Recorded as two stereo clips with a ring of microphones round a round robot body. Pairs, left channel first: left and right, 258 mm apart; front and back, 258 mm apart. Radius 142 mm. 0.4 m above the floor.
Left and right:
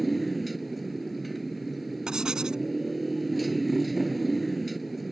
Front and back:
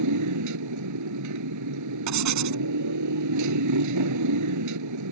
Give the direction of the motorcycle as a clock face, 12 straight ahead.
6 o'clock.